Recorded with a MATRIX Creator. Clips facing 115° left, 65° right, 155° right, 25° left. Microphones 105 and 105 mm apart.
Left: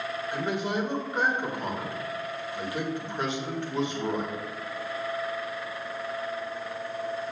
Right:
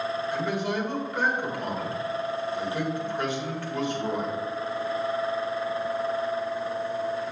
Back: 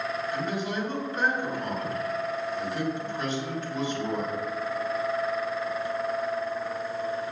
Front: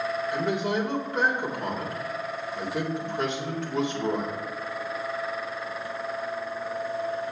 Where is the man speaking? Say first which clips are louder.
Left 2 dB, front 6 dB; 45° left, 1.8 m.